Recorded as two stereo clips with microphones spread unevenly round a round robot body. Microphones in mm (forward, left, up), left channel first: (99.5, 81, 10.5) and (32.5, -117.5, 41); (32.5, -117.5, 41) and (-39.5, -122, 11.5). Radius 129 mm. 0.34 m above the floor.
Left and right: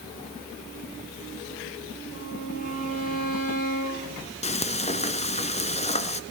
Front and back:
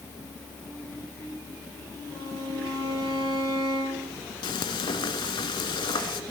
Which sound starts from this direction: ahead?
Frying, at 4.4 s.